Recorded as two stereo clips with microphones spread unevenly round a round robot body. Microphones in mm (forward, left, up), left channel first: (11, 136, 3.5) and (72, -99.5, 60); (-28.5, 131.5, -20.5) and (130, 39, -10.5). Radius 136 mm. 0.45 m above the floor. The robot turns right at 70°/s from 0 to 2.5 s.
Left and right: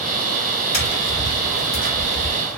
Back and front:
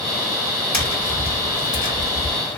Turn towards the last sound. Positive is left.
turn(degrees=-160)